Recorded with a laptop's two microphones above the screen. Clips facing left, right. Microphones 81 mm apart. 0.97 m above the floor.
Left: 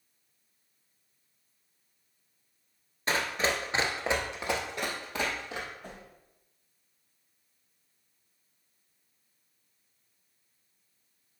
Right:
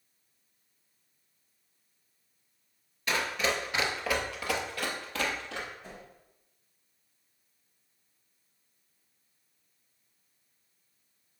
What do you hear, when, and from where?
3.1 s running footsteps: 35° left (ahead or behind), 1.1 m; by 5.7 s 15° left (ahead or behind), 2 m
5.8 s a whoosh: 50° left (ahead or behind), 1.5 m